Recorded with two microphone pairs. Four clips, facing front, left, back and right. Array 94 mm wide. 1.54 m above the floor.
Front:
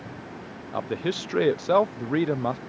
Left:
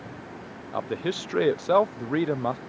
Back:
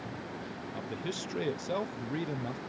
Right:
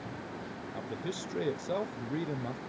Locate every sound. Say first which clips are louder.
0.7 s a man speaking: left 11 dB, front 11 dB; 60° left